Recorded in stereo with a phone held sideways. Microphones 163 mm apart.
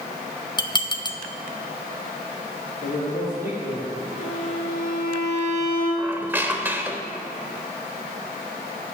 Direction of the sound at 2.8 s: 55° left (ahead or behind).